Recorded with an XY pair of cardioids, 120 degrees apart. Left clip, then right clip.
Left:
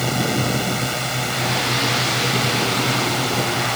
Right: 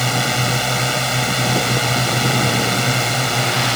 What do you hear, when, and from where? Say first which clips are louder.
0.0 s a drone: right 3 dB; 25° right